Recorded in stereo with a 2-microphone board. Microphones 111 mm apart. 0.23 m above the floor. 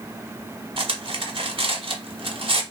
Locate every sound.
0.8 s cutlery clinking: 55° right (ahead or behind), 0.9 m